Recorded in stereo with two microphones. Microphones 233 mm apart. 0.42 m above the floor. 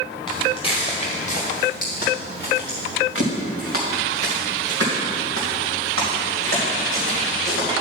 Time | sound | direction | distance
0.3 | footsteps | 20° left (ahead or behind) | 3.5 m